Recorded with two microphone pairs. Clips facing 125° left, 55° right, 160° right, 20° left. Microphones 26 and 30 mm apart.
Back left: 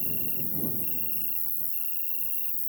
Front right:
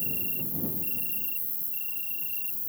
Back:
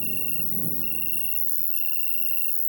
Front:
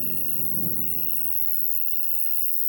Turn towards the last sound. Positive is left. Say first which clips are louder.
# front right 2 dB, back 3 dB
turn(degrees=-115)